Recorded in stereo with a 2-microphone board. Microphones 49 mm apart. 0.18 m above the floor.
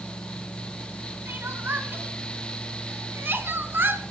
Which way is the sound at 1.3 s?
50° right (ahead or behind).